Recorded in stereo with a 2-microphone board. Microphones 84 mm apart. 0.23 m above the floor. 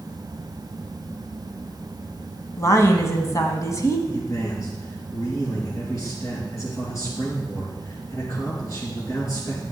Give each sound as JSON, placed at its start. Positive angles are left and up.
{"t": 2.6, "sound": "a woman speaking", "side_deg": 40, "distance_m": 1.4}
{"t": 4.1, "sound": "a man speaking", "side_deg": 40, "distance_m": 4.0}